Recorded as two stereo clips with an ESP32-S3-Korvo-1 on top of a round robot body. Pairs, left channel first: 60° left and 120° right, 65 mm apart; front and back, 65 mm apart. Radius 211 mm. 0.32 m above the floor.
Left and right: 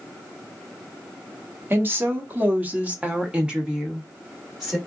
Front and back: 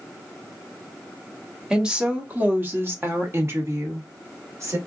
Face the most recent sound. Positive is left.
turn(degrees=155)